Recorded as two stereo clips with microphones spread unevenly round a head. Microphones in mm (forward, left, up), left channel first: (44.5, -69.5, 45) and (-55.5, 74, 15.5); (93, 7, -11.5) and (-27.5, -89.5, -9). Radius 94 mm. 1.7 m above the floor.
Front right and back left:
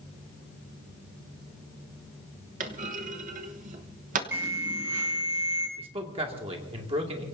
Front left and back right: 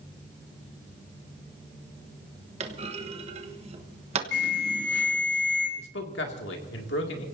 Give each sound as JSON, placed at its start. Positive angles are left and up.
{"t": 2.6, "sound": "a clunk", "azimuth_deg": 175, "distance_m": 1.2}
{"t": 4.3, "sound": "an alarm", "azimuth_deg": 45, "distance_m": 8.0}
{"t": 5.8, "sound": "a man speaking", "azimuth_deg": 65, "distance_m": 2.5}